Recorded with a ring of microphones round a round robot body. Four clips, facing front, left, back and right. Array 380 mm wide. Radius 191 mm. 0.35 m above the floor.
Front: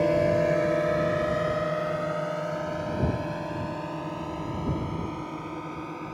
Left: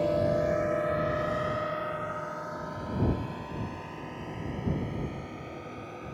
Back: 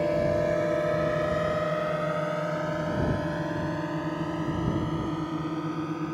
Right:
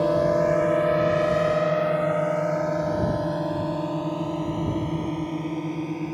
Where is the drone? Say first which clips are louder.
Right 6 dB, front 2 dB; 60° right; by 6.2 s 120° right.